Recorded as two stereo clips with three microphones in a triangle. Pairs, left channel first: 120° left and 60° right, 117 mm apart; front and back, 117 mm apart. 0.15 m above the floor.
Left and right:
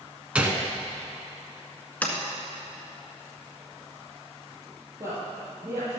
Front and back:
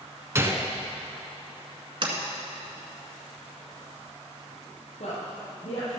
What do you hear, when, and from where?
0.3 s a gunshot: 135° right, 1.2 m
2.0 s a sliding door: 165° right, 1.7 m
5.0 s a woman speaking: 5° left, 4 m